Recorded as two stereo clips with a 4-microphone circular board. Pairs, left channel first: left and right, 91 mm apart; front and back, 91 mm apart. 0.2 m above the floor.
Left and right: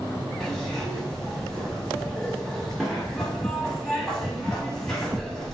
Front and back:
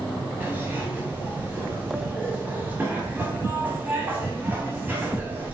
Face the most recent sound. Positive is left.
turn(degrees=165)